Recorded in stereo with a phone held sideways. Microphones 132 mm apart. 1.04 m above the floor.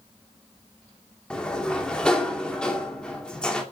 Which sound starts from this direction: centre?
A sliding door, at 1.3 s.